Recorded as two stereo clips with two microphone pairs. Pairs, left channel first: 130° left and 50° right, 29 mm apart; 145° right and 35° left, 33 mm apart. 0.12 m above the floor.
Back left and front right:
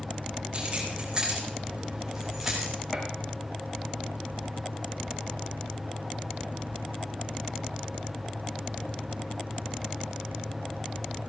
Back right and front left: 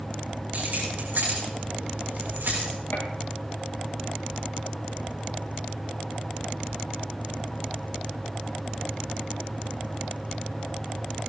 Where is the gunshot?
140° right, 3 m.